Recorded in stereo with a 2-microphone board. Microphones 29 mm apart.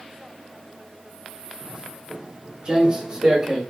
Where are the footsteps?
40° right (ahead or behind), 3 m; by 3.6 s 30° right (ahead or behind), 4 m.